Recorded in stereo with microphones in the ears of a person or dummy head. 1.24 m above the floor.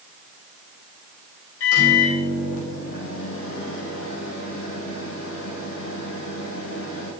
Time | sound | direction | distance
1.6 | a microwave | 75° left (ahead or behind) | 5 m